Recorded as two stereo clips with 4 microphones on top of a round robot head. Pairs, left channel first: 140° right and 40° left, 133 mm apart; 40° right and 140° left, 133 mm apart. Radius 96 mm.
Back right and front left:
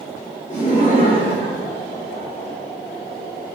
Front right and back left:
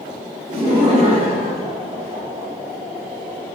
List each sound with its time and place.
0.5 s laughter: 165° right, 3.5 m